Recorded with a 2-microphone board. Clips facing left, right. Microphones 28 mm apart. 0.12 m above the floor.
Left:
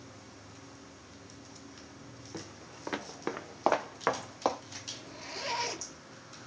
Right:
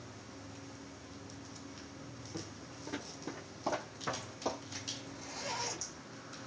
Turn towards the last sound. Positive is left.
turn(degrees=60)  # may be behind; listen again after turning